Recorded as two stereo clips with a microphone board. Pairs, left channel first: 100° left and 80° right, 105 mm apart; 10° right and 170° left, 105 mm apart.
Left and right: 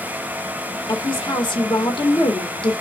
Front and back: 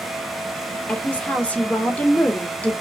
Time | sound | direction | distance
0.9 | a woman speaking | 65° left | 1.6 m